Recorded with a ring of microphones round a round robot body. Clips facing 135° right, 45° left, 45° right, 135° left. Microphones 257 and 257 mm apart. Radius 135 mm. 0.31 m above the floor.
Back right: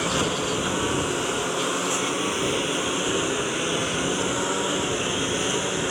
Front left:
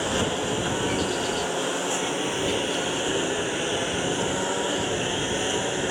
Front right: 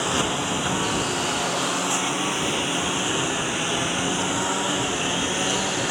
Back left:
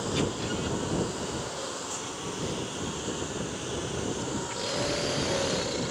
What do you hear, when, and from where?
0.0 s a lawn mower: 55° right